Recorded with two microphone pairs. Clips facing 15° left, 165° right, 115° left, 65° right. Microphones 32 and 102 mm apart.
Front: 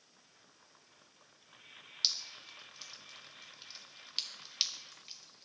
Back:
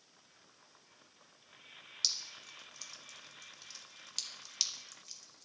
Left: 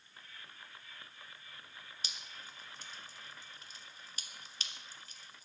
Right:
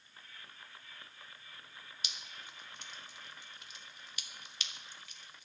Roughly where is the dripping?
Ahead left.